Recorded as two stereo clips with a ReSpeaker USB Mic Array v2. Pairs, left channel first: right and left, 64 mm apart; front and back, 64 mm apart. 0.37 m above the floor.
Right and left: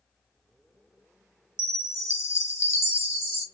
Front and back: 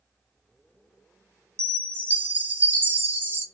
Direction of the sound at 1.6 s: 125° right.